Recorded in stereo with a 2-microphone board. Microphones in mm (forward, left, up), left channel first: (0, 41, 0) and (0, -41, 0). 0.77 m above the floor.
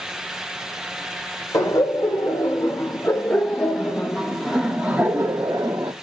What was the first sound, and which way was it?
Laughter, 35° left (ahead or behind).